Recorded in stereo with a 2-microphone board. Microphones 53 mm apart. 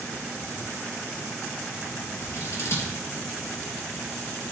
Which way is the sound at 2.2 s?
60° left (ahead or behind).